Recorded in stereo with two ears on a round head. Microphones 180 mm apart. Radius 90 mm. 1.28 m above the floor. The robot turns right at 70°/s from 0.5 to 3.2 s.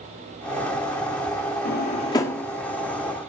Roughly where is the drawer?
Left.